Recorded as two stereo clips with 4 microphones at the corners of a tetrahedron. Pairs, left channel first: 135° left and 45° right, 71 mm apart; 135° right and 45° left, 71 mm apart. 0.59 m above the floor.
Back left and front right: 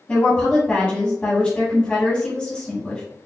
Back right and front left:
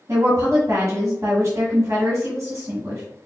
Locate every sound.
0.1 s a woman speaking: 75° left, 1.6 m